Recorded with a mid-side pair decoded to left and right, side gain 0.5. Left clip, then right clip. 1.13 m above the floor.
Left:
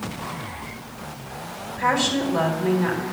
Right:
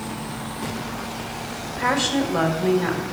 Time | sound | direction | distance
1.7 | a woman speaking | 10° right | 3 m